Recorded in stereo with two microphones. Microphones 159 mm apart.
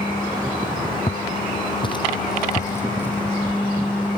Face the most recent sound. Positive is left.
turn(degrees=0)  # may be behind; listen again after turning